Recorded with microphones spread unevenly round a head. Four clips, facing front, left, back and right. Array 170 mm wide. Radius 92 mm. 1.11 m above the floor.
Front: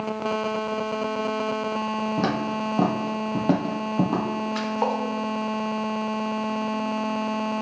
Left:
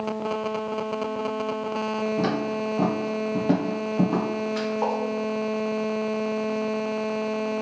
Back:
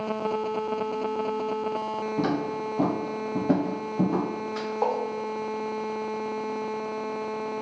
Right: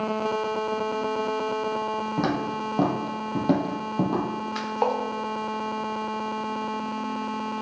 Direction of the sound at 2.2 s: 35° right.